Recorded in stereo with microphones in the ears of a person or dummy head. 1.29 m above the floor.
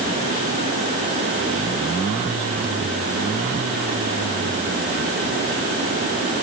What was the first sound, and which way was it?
Only background noise.